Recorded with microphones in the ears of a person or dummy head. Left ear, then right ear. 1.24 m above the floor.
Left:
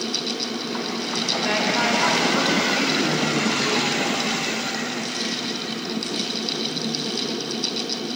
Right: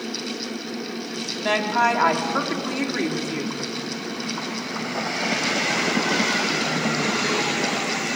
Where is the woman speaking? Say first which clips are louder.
Right 4 dB; 20° right (ahead or behind), 2.5 m.